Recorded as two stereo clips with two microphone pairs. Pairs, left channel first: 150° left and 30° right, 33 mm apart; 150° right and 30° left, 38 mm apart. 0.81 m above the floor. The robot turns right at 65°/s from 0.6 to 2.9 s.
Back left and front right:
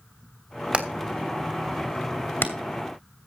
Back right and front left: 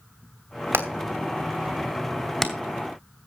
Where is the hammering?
25° left, 2.5 m; by 2.5 s 140° left, 2.5 m.